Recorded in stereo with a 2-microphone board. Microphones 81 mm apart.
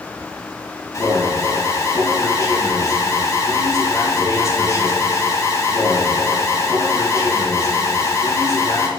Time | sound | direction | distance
0.9 | an alarm | 40° left (ahead or behind) | 3 m